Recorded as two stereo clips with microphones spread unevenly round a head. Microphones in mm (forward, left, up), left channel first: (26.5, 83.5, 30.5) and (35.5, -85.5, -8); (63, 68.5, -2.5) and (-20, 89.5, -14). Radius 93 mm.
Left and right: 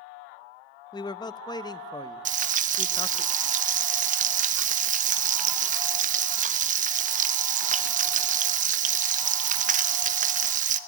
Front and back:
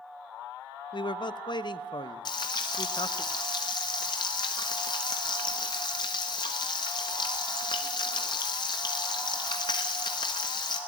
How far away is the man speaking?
About 0.8 m.